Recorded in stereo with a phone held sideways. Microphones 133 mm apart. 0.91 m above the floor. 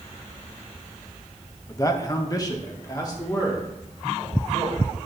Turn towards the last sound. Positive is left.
turn(degrees=30)  # may be behind; listen again after turning